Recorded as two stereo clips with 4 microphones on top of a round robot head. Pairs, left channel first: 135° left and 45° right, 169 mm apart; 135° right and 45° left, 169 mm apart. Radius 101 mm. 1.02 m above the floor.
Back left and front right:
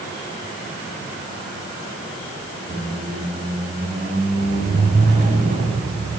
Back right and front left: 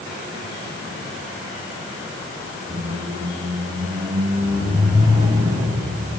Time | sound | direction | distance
2.7 | a squeak | 15° right | 1.0 m